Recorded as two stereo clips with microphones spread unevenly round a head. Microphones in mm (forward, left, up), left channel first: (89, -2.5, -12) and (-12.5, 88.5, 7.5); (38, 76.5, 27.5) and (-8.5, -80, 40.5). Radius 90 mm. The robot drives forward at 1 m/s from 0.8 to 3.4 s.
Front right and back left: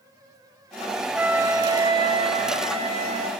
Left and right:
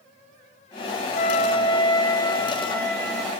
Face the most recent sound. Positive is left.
turn(degrees=165)